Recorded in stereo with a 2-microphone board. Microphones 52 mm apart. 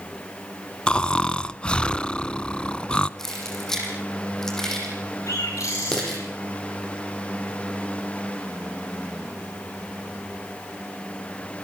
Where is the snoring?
20° left (ahead or behind), 0.7 m.